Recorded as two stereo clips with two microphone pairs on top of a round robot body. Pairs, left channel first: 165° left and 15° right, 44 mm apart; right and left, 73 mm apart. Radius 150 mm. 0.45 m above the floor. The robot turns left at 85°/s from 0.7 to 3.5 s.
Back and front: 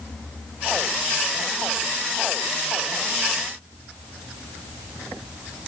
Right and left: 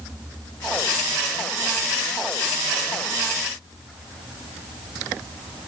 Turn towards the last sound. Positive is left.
No sound to turn to.